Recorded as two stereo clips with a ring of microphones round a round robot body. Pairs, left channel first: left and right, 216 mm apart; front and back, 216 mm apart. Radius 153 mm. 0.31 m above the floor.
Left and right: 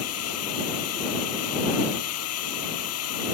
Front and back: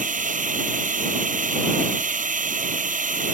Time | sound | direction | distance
0.0 | a drone | 125° left | ?